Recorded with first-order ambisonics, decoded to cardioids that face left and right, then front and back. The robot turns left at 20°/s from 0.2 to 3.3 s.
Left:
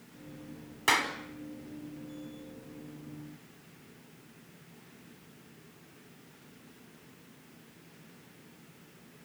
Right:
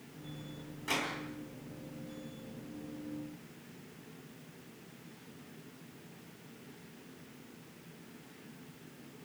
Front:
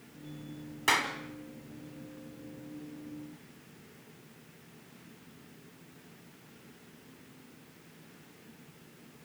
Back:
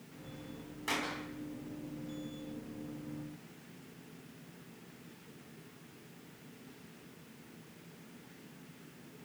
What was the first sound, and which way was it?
A clap, 60° left.